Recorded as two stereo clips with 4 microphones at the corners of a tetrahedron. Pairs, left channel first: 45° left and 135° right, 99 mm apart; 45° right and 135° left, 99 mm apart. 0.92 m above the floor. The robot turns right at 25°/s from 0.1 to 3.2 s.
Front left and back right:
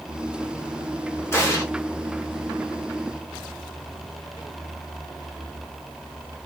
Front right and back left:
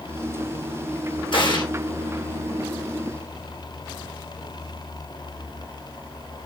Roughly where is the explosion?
Ahead.